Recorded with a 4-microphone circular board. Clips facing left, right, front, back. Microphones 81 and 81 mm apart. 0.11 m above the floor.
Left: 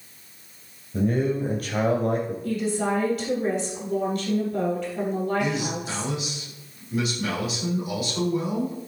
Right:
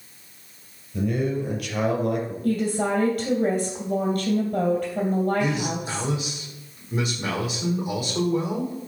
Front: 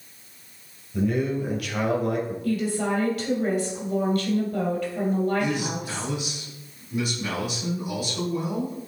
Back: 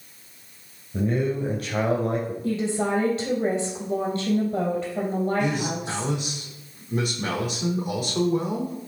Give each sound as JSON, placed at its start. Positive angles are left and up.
{"t": 0.9, "sound": "a man speaking", "azimuth_deg": 130, "distance_m": 3.0}
{"t": 2.4, "sound": "a woman speaking", "azimuth_deg": -130, "distance_m": 3.0}
{"t": 5.4, "sound": "a man speaking", "azimuth_deg": -150, "distance_m": 4.5}